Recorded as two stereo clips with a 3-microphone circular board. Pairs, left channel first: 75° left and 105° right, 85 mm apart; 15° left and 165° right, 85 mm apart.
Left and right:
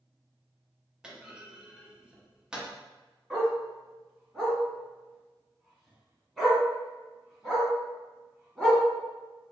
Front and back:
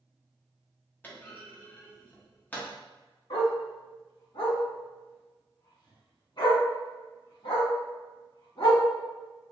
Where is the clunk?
30° right, 0.8 m.